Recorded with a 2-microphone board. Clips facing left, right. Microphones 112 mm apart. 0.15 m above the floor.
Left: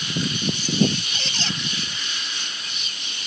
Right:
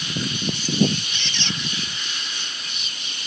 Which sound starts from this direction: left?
A squeak, at 1.1 s.